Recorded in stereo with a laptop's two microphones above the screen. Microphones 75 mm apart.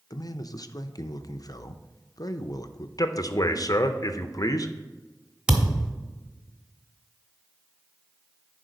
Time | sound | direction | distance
0.1 | a man speaking | 60° left (ahead or behind) | 0.5 m
3.0 | a man speaking | 55° left (ahead or behind) | 0.7 m
5.5 | a thud | 10° right (ahead or behind) | 1.0 m